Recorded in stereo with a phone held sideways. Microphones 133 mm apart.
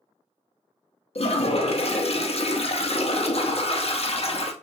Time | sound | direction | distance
1.1 | a toilet flushing | 50° left (ahead or behind) | 0.5 m